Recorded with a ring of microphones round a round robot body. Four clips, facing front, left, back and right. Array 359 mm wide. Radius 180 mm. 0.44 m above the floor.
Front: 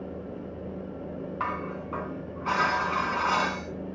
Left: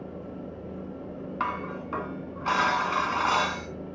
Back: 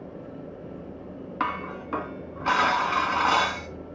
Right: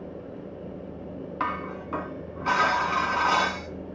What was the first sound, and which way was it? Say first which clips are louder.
Dishes clattering: right 1 dB, back 4 dB; 175° left.